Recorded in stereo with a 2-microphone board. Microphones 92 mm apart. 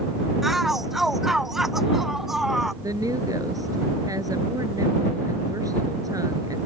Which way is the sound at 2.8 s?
40° right (ahead or behind).